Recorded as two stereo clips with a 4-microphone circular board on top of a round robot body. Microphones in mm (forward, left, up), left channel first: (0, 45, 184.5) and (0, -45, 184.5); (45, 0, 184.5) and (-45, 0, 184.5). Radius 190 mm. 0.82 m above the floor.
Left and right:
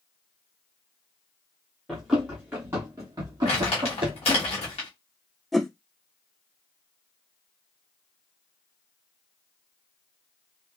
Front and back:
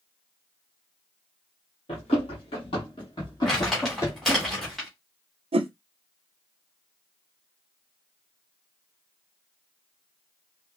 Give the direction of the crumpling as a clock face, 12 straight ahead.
9 o'clock.